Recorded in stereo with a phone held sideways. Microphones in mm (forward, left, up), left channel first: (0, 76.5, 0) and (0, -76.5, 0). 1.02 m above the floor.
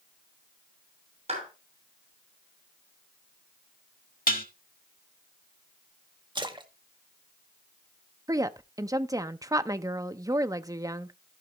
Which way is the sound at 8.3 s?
20° right (ahead or behind).